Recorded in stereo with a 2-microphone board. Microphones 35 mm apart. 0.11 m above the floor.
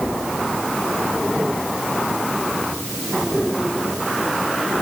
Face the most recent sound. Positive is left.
No sound to turn to.